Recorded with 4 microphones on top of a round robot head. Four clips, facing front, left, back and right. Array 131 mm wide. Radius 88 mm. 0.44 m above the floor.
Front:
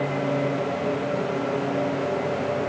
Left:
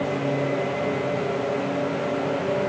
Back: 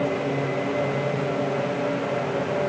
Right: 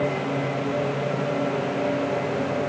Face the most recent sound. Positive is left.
No sound to turn to.